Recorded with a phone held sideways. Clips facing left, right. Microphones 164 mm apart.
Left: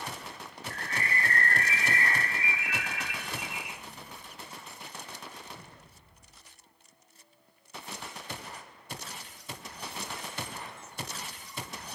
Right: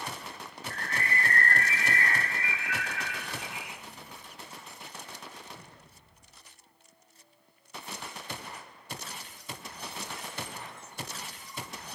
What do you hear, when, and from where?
0.7 s a bird: 20° left (ahead or behind), 2 m